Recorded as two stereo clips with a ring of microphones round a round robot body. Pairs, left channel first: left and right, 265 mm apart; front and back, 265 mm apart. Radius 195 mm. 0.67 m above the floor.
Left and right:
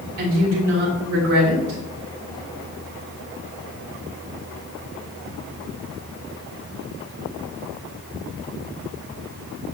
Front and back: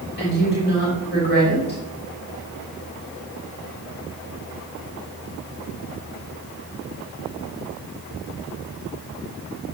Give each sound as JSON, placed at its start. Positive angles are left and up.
{"t": 0.2, "sound": "a woman speaking", "azimuth_deg": -60, "distance_m": 3.0}